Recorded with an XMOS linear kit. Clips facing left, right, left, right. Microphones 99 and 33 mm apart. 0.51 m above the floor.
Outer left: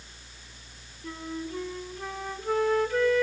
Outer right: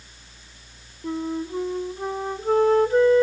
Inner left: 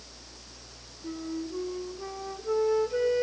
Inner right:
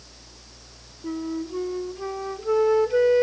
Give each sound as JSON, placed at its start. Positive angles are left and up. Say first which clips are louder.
{"t": 1.0, "sound": "a flute", "louder": "outer right 8 dB, inner right 6 dB", "side_deg": -30, "distance_m": 1.0}